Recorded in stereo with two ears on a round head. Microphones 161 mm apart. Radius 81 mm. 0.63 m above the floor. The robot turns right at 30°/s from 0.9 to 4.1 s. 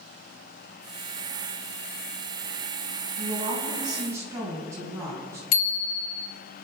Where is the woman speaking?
45° right (ahead or behind), 5.5 m; by 5.4 s 15° right (ahead or behind), 5.5 m.